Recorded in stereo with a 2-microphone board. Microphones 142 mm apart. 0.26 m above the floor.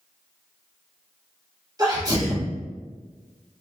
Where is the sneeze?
30° right (ahead or behind), 1.3 m.